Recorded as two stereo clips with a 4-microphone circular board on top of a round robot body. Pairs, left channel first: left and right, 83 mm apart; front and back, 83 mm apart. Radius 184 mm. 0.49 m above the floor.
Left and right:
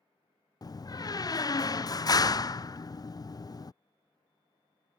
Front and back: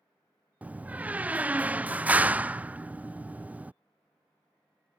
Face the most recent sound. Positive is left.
turn(degrees=110)